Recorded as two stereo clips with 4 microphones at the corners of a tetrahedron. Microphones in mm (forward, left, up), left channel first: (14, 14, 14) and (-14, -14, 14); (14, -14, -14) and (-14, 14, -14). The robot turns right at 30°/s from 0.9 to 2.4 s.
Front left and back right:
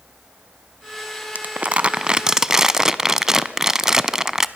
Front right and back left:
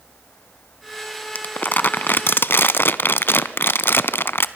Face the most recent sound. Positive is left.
turn(degrees=-60)